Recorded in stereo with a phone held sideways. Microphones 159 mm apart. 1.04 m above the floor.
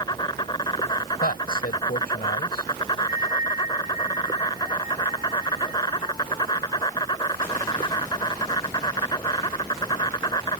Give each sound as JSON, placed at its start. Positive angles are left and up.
{"t": 0.0, "sound": "an insect", "side_deg": 25}
{"t": 1.2, "sound": "a man speaking", "side_deg": 85}
{"t": 3.1, "sound": "a bell", "side_deg": -20}